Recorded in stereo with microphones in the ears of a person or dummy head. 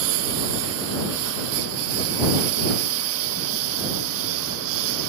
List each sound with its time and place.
0.0 s a lawn mower: 85° right